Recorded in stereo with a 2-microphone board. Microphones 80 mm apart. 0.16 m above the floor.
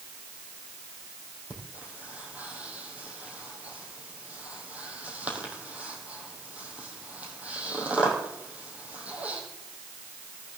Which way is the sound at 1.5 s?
15° right (ahead or behind).